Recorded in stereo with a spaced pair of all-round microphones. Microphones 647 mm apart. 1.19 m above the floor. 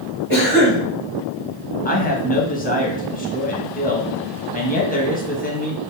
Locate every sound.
0.3 s a cough: 40° left (ahead or behind), 1.7 m
1.9 s a man speaking: 15° left (ahead or behind), 1.1 m